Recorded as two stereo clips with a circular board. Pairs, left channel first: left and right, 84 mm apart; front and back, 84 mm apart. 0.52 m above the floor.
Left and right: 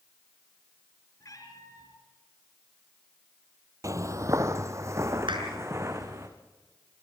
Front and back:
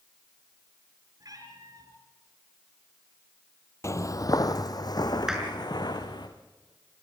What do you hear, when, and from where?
1.2 s a cat meowing: 135° left, 4 m
3.8 s footsteps: 50° right, 0.9 m; by 6.3 s 35° right, 3 m
5.3 s a clap: 95° right, 5.5 m